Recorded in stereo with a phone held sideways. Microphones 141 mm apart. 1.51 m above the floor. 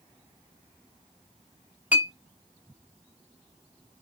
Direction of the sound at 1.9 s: 15° right (ahead or behind).